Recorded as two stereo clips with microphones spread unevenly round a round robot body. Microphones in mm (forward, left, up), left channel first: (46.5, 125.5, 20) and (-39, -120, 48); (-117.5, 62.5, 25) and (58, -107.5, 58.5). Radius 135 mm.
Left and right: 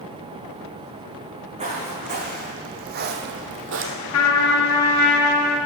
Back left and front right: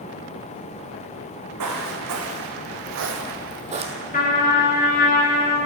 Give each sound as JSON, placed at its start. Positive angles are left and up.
{"t": 1.6, "sound": "footsteps", "azimuth_deg": -45, "distance_m": 2.5}
{"t": 4.1, "sound": "a trumpet", "azimuth_deg": 80, "distance_m": 2.0}